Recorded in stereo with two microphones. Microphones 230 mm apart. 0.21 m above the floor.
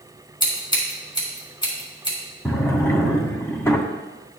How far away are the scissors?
About 2.5 m.